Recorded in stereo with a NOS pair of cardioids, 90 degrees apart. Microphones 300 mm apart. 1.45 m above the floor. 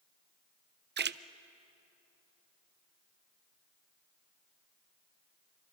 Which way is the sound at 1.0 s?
35° right.